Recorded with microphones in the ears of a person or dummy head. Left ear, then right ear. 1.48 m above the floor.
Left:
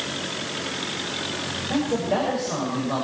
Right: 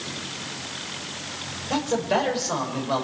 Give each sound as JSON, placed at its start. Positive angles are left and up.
{"t": 1.7, "sound": "a man speaking", "side_deg": -45, "distance_m": 5.5}